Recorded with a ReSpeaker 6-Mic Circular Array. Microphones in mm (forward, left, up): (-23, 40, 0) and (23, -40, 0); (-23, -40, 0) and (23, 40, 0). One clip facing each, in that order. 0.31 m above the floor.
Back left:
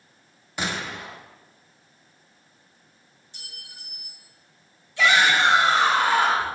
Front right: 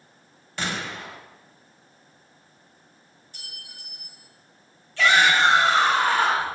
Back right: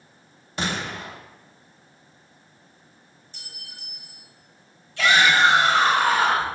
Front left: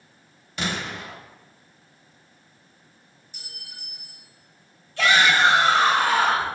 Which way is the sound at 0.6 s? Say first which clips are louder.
Back left 1 dB, back right 1 dB; 165° right.